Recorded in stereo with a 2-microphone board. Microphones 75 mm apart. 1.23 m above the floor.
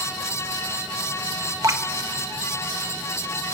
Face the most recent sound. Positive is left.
turn(degrees=-45)  # may be behind; listen again after turning